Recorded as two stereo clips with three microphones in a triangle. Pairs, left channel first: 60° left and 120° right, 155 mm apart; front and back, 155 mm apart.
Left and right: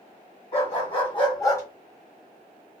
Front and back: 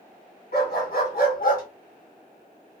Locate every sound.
0.5 s a dog barking: 10° left, 1.8 m; by 1.6 s 15° right, 0.9 m